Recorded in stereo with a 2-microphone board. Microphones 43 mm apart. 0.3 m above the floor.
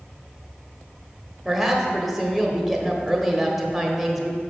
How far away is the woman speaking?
About 0.8 m.